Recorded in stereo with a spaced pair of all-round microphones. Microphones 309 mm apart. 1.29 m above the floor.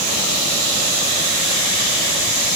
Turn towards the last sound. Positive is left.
No sound to turn to.